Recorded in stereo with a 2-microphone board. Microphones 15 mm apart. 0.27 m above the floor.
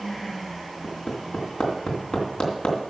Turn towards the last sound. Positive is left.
turn(degrees=65)  # may be behind; listen again after turning